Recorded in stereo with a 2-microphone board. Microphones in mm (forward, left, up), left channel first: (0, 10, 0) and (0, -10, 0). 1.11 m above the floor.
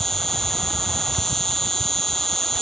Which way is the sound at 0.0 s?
20° left (ahead or behind).